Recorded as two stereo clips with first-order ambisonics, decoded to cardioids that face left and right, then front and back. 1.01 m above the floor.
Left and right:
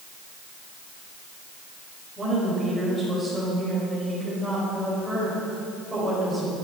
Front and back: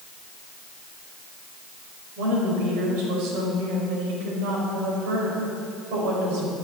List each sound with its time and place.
2.2 s a woman speaking: 175° right, 5 m